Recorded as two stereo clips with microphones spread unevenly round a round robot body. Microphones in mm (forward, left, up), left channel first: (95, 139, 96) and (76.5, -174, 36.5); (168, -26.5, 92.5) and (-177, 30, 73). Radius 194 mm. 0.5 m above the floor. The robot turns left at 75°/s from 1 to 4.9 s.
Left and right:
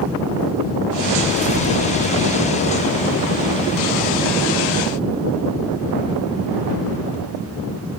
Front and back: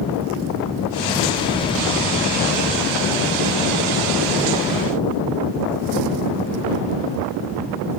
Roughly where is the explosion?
Left.